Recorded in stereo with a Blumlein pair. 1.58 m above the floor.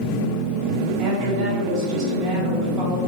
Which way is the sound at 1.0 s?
30° right.